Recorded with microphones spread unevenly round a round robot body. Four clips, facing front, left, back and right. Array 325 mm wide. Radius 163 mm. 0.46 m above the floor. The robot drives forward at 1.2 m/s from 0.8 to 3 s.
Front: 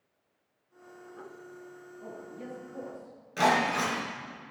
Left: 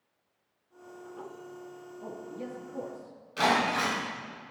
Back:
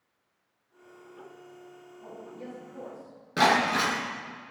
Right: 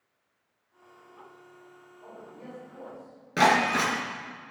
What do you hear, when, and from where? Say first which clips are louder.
2.0 s a man speaking: left 5 dB, back 1 dB; 85° left, 6.5 m; by 3.2 s 95° left, 6.5 m
3.4 s breaking glass: right 4 dB, back 2 dB; 125° right, 5.5 m